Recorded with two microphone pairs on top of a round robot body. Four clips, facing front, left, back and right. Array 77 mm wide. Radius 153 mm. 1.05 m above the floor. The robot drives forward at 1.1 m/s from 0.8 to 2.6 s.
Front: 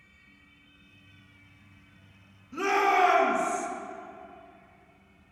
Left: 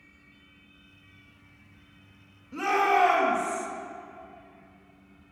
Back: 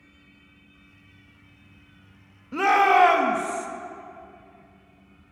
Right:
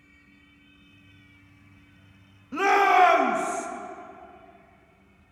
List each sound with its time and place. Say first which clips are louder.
2.5 s a shout: right 4 dB, back 6 dB; 140° right, 1.3 m